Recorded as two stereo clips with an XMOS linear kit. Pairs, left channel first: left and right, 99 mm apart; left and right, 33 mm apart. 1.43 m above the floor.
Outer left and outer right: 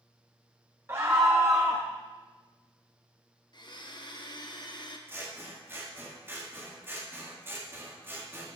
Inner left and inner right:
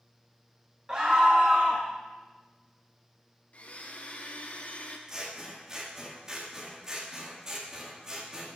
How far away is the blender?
About 1.0 m.